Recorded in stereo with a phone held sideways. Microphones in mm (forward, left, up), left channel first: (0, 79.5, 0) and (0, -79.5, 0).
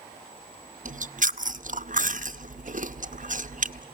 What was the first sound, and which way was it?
Chewing, 55° right (ahead or behind).